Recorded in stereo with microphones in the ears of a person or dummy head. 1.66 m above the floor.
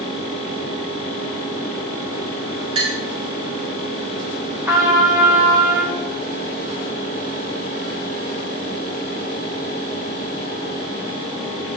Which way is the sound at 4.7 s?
15° right (ahead or behind).